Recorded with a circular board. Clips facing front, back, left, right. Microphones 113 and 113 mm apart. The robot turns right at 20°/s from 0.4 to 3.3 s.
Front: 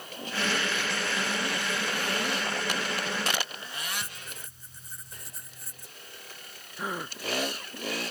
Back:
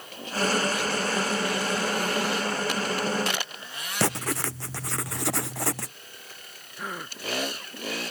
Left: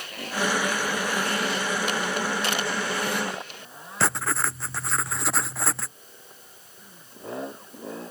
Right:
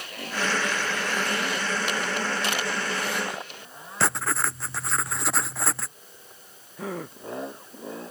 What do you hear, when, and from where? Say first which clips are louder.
4.0 s writing: back 16 dB, even; straight behind
6.8 s a gasp: front 2 dB, right 21 dB; 80° right